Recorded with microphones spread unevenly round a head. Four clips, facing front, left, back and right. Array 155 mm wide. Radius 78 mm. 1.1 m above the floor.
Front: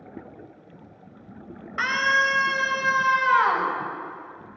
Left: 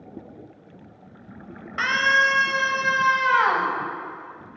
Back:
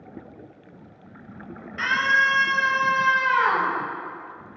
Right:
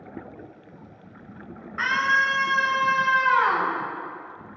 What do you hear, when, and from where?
1.8 s a scream: 50° left, 6.5 m